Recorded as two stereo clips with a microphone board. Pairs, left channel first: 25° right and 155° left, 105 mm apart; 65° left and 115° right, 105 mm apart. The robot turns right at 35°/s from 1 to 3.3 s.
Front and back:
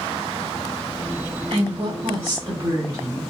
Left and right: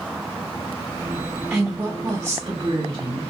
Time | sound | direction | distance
1.5 | a woman speaking | 170° left | 1.6 m